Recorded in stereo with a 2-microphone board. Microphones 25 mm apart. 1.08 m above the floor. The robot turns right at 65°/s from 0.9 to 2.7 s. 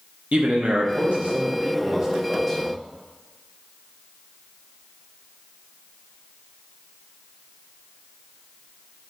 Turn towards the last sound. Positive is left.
turn(degrees=20)